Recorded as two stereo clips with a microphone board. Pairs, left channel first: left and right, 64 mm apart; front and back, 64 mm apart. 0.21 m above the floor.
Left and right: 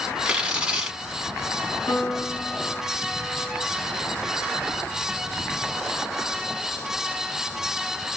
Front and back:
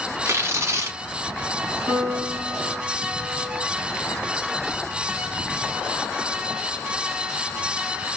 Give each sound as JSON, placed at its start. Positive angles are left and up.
{"t": 0.2, "sound": "tearing paper", "azimuth_deg": -165, "distance_m": 1.2}
{"t": 1.9, "sound": "a piano", "azimuth_deg": 140, "distance_m": 0.9}